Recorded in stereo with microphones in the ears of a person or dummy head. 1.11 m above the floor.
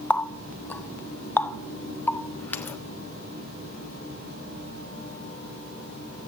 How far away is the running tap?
About 0.5 m.